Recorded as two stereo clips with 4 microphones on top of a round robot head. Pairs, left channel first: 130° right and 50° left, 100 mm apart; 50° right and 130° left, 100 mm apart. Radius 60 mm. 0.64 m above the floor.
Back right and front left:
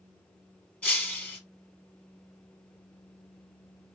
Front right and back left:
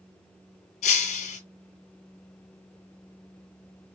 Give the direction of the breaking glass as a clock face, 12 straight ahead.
2 o'clock.